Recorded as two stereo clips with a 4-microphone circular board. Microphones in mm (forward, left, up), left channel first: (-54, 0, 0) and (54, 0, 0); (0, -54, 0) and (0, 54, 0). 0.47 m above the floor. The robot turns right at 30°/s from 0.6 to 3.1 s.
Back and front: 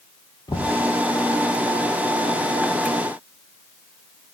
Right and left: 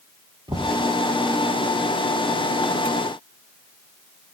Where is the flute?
I don't hear a flute.